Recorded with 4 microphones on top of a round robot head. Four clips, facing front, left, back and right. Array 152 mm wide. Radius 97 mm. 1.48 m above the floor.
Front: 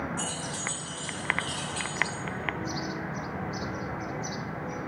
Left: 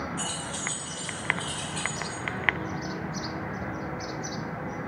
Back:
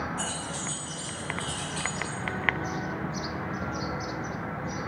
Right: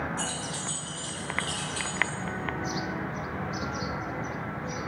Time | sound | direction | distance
0.2 | keys jangling | 30° right | 0.9 m